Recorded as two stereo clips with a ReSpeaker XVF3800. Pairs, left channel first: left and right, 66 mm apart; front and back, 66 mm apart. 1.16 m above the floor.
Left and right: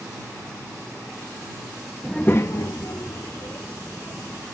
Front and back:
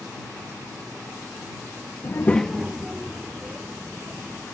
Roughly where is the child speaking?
Ahead.